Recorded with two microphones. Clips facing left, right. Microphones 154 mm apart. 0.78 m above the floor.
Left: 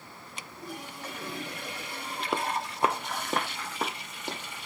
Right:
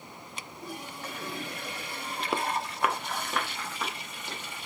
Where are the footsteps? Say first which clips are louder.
Even; centre (ahead or behind), 0.8 m; by 4.4 s 50° left (ahead or behind), 3 m.